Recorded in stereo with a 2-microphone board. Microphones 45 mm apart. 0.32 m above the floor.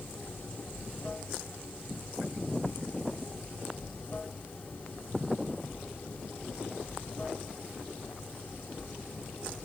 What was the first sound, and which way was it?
Running water, 40° left (ahead or behind).